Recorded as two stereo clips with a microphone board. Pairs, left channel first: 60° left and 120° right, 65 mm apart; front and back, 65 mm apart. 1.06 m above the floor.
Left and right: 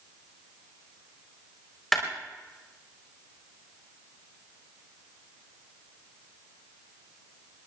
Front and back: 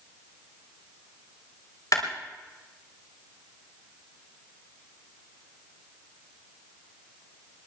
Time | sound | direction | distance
1.9 | a clap | 25° right | 3.5 m